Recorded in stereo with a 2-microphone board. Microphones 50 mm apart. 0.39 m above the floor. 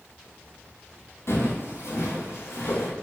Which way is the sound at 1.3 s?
65° left (ahead or behind).